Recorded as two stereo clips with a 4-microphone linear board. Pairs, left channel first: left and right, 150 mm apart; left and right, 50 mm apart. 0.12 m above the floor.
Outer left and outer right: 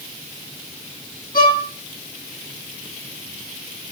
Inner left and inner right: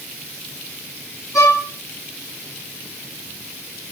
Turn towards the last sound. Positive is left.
turn(degrees=75)  # may be behind; listen again after turning